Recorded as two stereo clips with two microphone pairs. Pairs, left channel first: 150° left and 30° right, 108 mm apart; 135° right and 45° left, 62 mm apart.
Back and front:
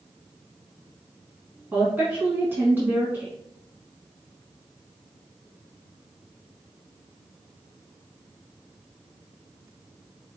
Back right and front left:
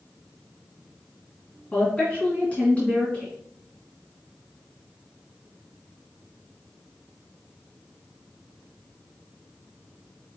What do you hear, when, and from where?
1.7 s a woman speaking: 85° right, 1.8 m